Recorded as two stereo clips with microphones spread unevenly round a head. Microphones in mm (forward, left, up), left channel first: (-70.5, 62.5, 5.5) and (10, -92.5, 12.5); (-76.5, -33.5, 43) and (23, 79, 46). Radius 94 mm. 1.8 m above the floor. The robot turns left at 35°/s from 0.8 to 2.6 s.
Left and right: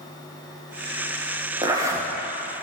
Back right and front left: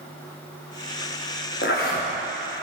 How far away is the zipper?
About 1.1 m.